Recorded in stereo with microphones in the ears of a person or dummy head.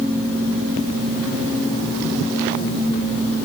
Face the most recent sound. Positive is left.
No sound to turn to.